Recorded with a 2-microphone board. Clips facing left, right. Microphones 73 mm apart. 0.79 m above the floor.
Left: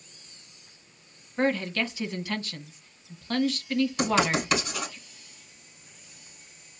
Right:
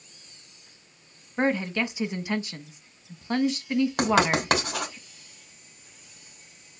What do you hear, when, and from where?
1.4 s a woman speaking: 20° right (ahead or behind), 0.9 m
4.0 s writing: 70° right (ahead or behind), 2.5 m